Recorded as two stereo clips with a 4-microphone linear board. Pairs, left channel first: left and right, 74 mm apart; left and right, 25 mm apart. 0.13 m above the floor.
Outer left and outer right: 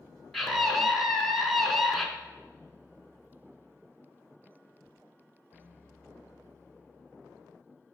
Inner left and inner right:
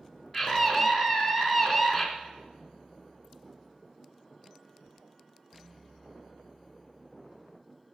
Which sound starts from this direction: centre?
A scream, at 0.3 s.